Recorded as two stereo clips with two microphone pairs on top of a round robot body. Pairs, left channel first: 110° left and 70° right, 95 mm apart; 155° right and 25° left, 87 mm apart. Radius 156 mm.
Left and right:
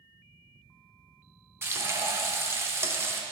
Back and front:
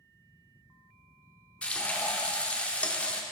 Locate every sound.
1.6 s frying: 85° right, 0.9 m